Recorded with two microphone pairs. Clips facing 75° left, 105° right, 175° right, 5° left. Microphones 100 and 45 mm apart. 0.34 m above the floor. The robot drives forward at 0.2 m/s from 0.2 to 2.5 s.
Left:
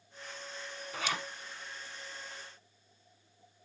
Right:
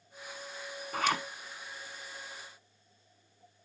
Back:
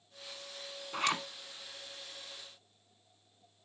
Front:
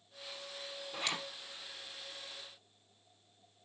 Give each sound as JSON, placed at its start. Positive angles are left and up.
{"t": 0.9, "sound": "a zipper", "azimuth_deg": -145, "distance_m": 1.1}